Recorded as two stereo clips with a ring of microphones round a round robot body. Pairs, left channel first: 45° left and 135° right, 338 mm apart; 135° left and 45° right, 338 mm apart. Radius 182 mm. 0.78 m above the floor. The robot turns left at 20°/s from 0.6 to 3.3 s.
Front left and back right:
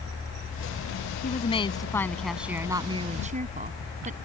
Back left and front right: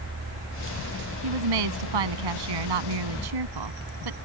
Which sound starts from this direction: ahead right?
A woman speaking, at 1.2 s.